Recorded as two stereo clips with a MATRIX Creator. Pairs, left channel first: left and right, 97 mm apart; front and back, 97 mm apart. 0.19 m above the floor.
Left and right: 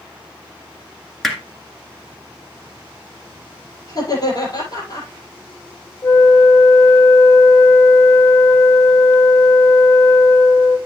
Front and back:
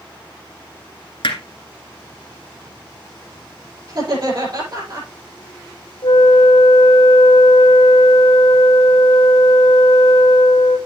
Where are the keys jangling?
No keys jangling in this recording.